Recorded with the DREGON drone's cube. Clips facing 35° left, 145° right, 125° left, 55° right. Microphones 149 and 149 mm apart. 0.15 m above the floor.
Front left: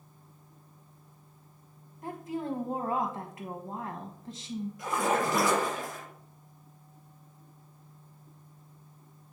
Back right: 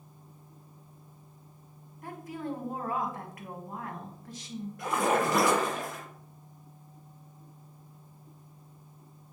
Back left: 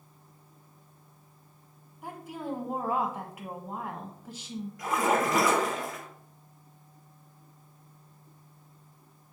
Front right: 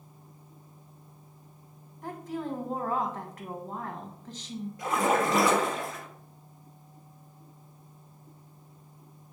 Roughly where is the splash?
Behind right.